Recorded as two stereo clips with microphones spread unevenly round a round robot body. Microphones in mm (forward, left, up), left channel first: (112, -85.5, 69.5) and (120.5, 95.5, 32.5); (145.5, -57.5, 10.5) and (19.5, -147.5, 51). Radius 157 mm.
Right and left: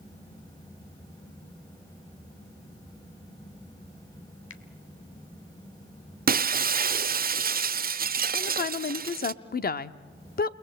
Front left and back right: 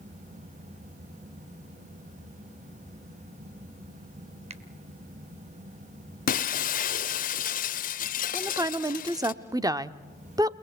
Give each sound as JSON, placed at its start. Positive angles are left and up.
{"t": 4.5, "sound": "a finger snap", "azimuth_deg": -90, "distance_m": 1.7}
{"t": 6.3, "sound": "breaking glass", "azimuth_deg": 55, "distance_m": 0.8}
{"t": 8.3, "sound": "a woman speaking", "azimuth_deg": -70, "distance_m": 1.0}